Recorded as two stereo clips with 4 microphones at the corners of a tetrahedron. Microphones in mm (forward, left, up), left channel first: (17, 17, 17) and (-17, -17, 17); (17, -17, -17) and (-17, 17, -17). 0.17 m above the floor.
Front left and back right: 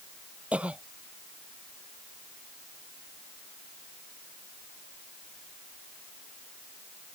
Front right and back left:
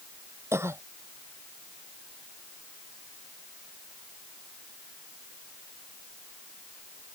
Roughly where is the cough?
Behind.